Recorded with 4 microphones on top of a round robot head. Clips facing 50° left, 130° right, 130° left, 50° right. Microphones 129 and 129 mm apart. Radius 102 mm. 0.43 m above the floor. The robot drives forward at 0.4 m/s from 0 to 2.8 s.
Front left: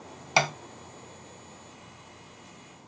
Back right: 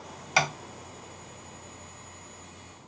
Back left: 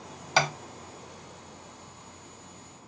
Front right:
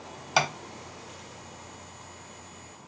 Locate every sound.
0.4 s tapping: 25° left, 1.1 m